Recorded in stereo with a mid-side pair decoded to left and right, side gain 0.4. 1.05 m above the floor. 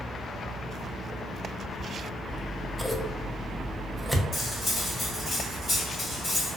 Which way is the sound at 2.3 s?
5° right.